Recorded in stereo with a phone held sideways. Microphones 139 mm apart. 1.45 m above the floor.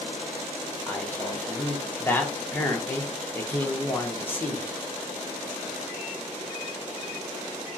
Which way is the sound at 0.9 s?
15° left (ahead or behind).